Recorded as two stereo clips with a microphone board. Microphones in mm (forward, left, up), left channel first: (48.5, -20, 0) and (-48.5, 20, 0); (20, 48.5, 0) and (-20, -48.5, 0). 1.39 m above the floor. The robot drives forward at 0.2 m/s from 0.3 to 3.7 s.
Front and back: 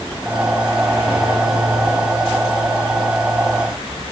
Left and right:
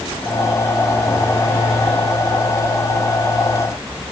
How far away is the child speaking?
No child speaking in this recording.